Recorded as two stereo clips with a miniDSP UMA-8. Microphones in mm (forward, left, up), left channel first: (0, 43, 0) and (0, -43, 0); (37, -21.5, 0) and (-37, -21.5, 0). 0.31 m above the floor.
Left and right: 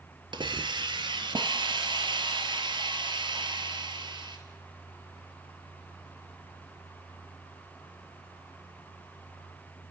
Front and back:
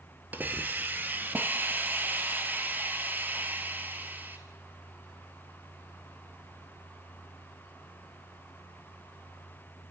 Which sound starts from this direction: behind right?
A hiss, at 0.3 s.